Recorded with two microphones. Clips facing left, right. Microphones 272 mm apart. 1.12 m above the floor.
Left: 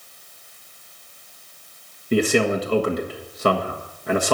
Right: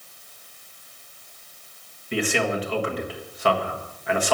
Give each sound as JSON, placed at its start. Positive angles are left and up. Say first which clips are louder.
{"t": 2.1, "sound": "a man speaking", "louder": "left 6 dB", "side_deg": 45, "distance_m": 1.5}